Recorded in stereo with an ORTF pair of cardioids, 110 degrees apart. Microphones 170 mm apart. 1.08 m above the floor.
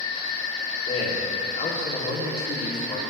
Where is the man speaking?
40° left, 2 m.